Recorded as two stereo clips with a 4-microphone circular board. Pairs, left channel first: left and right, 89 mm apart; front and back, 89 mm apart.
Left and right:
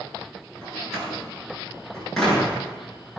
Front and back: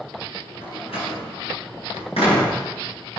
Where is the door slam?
5° left, 8 m.